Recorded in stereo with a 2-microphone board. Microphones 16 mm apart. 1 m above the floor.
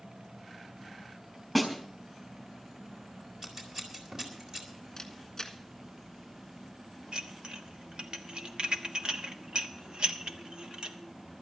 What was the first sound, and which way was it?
A snare drum, 5° right (ahead or behind).